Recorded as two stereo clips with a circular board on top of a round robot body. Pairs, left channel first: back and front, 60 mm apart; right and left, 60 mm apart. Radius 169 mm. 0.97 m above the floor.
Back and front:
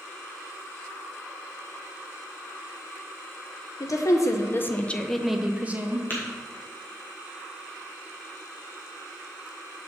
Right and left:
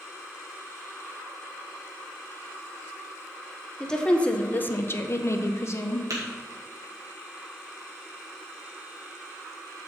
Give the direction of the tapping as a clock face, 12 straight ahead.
8 o'clock.